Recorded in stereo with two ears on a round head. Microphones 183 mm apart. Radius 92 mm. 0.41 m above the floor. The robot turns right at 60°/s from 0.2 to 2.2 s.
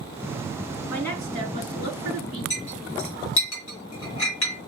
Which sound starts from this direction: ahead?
A woman speaking, at 0.9 s.